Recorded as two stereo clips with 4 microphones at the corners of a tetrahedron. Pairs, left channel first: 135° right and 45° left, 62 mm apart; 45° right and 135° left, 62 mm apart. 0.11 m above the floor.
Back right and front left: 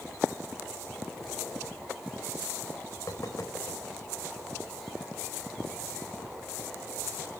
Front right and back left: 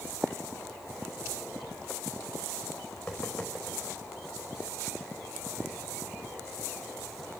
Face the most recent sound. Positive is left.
turn(degrees=-125)